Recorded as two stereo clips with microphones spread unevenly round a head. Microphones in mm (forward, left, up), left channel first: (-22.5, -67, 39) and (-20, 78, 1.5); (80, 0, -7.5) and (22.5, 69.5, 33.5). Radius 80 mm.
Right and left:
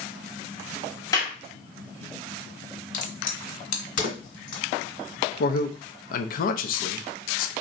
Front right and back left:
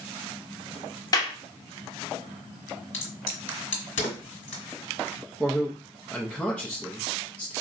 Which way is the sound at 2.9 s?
70° right.